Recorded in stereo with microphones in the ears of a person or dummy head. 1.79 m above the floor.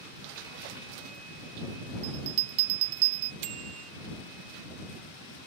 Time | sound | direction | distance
2.0 | a bell | 40° right (ahead or behind) | ?
3.4 | a bicycle bell | 75° right (ahead or behind) | ?